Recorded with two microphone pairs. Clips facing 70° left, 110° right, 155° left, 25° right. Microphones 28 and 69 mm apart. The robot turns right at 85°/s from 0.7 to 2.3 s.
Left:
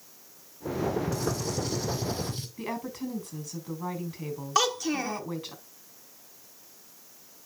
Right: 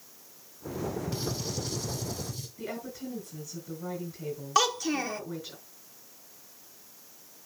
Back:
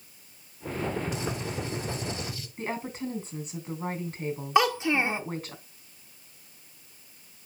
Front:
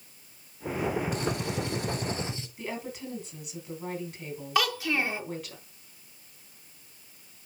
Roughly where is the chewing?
No chewing in this recording.